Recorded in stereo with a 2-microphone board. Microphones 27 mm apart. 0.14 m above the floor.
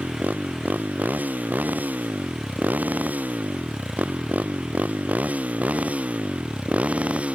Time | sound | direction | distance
0.0 | a motorcycle | 70° right (ahead or behind) | ?